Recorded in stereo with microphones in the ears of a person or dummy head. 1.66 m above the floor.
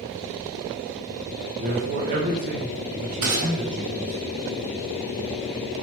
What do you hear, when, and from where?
1.6 s a man speaking: 40° right (ahead or behind), 1.2 m
3.2 s a gunshot: 60° right (ahead or behind), 2.5 m